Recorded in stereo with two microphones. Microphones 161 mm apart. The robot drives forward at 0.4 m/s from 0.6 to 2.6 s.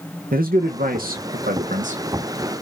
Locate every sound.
0.3 s a man speaking: 65° right (ahead or behind), 0.8 m; by 2.0 s 50° right (ahead or behind), 0.9 m